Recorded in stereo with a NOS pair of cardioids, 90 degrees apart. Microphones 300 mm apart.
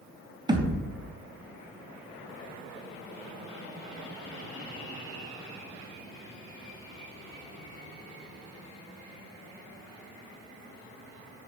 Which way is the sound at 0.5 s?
15° right.